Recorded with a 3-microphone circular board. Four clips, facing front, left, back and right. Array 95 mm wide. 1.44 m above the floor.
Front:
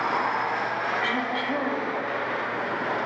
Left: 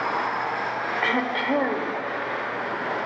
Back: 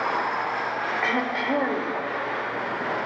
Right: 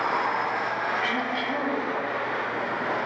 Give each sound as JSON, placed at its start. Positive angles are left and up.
{"t": 1.0, "sound": "throat clearing", "azimuth_deg": 115, "distance_m": 1.7}